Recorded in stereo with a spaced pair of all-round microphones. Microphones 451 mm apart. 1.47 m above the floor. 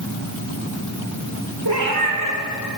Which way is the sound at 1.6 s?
50° right (ahead or behind).